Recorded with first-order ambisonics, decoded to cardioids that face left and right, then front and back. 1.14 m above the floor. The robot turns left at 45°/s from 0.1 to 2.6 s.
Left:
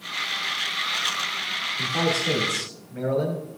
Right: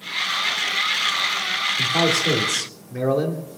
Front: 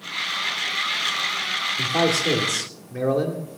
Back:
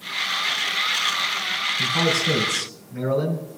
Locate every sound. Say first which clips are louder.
1.8 s a man speaking: right 4 dB, front 1 dB; 20° right, 2.5 m; by 3.5 s 60° right, 2.5 m